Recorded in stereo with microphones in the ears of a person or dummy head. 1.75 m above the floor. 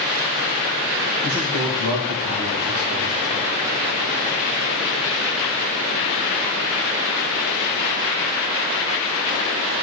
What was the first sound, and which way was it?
A man speaking, 45° right (ahead or behind).